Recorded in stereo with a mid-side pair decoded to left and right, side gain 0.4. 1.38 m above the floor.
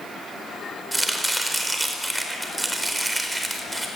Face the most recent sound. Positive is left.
turn(degrees=-15)